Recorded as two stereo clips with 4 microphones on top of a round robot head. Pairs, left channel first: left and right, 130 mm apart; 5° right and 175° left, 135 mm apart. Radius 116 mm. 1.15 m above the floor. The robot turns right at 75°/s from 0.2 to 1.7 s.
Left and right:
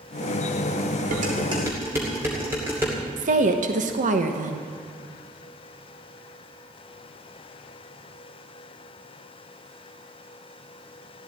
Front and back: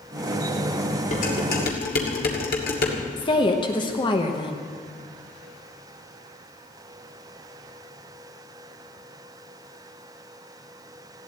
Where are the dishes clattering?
60° right, 2.5 m; by 3.0 s 15° right, 2.5 m.